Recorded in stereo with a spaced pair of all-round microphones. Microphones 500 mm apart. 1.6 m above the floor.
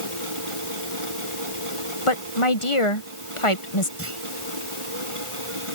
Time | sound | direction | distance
0.0 | a machine running | 80° right | ?
2.1 | a woman speaking | 80° left | ?
4.0 | a clunk | 25° right (ahead or behind) | ?